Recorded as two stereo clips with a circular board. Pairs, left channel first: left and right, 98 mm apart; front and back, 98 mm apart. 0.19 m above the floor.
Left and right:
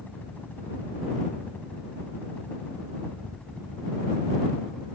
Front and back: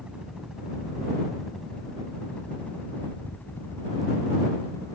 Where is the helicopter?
120° left; by 5.0 s 10° left.